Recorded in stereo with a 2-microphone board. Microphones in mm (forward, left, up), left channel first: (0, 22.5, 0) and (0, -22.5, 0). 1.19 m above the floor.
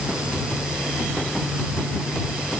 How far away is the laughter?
No laughter in this recording.